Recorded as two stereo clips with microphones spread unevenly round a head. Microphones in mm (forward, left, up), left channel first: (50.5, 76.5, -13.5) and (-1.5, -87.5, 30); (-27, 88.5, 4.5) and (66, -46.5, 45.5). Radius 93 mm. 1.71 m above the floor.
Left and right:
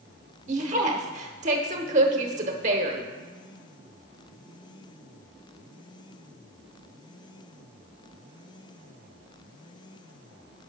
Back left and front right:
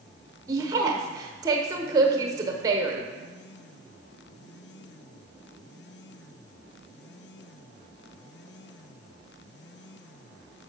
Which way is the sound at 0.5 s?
110° right.